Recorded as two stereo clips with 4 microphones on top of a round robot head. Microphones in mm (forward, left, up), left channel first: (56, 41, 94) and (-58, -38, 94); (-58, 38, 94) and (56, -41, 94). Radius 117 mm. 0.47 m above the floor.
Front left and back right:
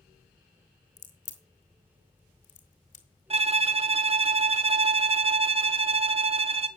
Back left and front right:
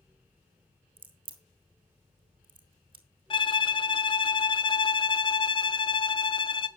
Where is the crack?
15° left, 3 m.